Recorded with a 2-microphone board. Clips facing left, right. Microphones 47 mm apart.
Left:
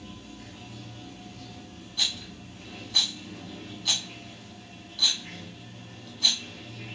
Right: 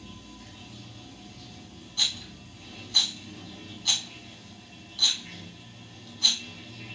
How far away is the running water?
About 1.0 m.